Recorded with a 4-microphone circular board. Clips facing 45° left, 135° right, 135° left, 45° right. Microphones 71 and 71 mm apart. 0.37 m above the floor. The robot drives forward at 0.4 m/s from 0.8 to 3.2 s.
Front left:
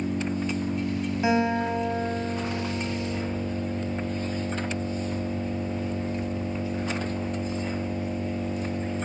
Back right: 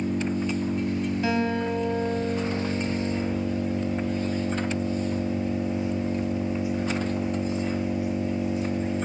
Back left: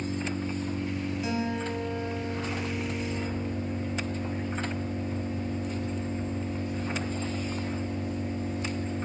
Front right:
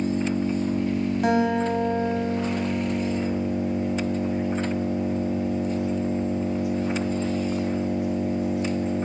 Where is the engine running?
50° right, 4.5 m; by 9.1 s 60° right, 4 m.